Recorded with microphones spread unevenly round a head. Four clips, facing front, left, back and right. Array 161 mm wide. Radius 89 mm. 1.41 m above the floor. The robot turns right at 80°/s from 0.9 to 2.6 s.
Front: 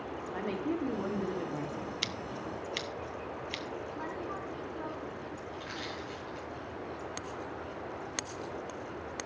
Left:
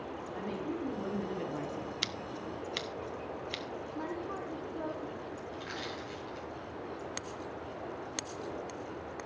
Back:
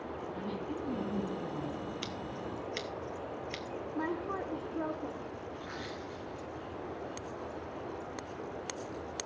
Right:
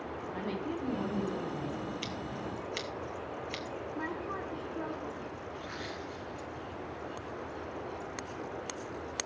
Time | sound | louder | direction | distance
0.2 | a woman speaking | right 1 dB, front 6 dB | 25° right | 2.5 m
2.0 | scissors | right 2 dB, front 1 dB | 60° left | 0.8 m
4.0 | a woman speaking | even, back 3 dB | 175° left | 1.3 m
5.5 | crushing | even, front 1 dB | 85° left | 9.5 m